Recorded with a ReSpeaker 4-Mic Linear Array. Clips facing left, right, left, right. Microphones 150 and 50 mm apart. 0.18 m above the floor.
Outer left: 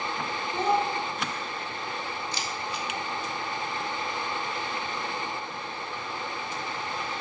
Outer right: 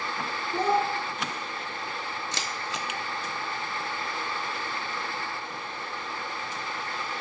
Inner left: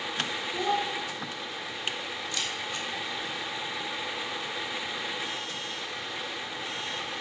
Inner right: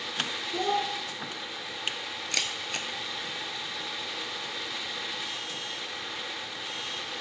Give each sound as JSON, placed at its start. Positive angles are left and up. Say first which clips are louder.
{"t": 0.5, "sound": "a child speaking", "louder": "outer right 1 dB, even", "side_deg": -50, "distance_m": 1.6}
{"t": 2.3, "sound": "a camera shutter", "louder": "outer left 1 dB, inner right 3 dB", "side_deg": -80, "distance_m": 0.5}